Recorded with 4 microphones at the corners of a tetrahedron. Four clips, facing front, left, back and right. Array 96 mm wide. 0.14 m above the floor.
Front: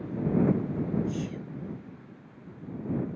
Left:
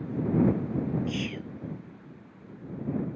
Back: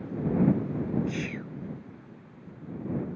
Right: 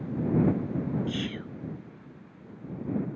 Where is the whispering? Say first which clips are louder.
Even, even; 175° right.